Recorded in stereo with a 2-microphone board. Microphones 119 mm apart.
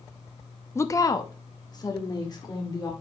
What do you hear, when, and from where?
0.8 s a woman speaking: 20° left (ahead or behind), 0.5 m; by 2.9 s 35° left (ahead or behind), 2.5 m